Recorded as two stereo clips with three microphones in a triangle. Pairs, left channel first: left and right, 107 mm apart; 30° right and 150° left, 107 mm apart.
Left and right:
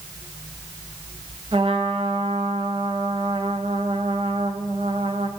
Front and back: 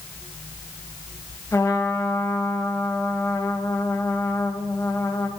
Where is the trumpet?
85° right, 0.9 m.